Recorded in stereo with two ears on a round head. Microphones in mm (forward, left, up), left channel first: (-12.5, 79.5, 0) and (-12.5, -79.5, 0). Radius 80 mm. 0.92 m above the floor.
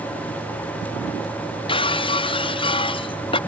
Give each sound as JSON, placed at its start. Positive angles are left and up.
{"t": 1.7, "sound": "breaking glass", "side_deg": 30}